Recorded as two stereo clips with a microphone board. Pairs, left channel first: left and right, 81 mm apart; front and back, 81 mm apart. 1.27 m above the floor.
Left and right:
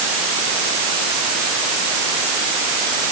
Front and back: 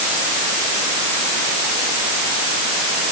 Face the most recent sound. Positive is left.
No sound to turn to.